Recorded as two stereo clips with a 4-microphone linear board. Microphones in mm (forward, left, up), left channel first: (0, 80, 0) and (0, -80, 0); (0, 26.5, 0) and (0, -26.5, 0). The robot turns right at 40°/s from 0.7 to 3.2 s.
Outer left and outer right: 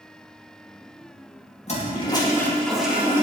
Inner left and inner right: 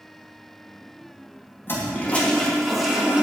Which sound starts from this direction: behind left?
A toilet flushing, at 1.7 s.